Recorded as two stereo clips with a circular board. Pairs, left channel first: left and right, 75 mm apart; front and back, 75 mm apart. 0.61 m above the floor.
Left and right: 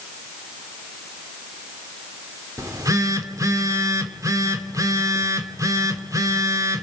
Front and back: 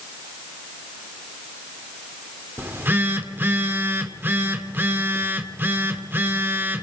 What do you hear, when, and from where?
2.6 s a phone buzzing: 125° right, 1.9 m